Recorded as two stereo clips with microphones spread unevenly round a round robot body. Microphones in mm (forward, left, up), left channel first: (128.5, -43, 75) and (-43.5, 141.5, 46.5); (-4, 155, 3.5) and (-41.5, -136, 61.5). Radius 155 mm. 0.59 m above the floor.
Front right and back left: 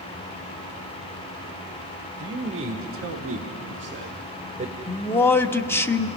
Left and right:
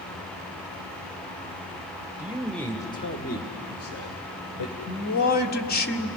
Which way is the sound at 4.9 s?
35° left.